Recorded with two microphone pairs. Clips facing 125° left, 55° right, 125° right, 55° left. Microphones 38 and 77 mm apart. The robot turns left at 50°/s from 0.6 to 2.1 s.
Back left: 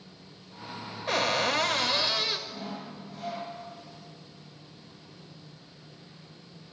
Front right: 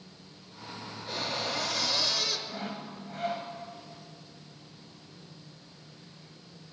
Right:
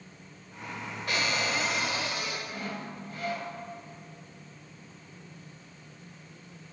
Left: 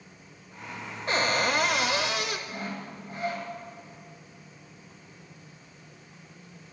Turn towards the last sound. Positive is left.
turn(degrees=-10)